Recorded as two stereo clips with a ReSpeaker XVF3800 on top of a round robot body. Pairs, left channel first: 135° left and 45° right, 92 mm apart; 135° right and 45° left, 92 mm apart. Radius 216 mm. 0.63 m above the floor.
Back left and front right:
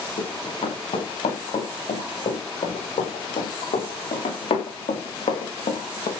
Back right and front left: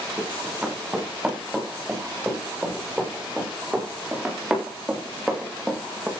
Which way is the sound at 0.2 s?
130° left.